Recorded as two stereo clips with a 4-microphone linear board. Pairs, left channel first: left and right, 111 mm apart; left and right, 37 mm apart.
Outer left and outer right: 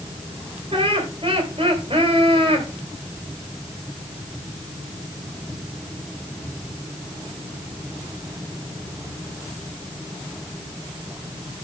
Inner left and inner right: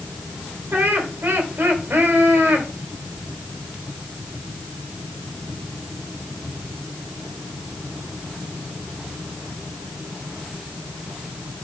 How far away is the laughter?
About 2.5 m.